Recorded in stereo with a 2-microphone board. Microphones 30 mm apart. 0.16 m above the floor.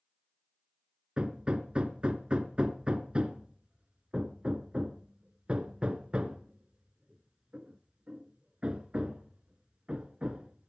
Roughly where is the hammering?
Right.